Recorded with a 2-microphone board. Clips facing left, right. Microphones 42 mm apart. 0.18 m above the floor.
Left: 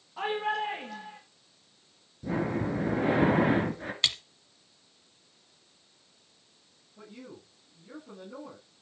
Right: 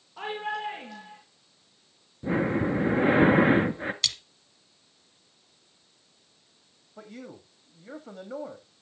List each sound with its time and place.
0.2 s a shout: 5° left (ahead or behind), 3.5 m
2.2 s breathing: 35° right (ahead or behind), 2 m
4.0 s a splash: 25° left (ahead or behind), 1.4 m
7.0 s a man speaking: 70° right (ahead or behind), 8.5 m